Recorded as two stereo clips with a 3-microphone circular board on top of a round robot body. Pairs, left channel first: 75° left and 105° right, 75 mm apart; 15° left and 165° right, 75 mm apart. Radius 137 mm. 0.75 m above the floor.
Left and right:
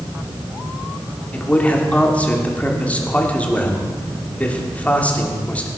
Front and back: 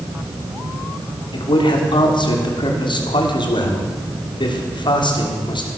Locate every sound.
1.3 s a man speaking: 5° left, 3 m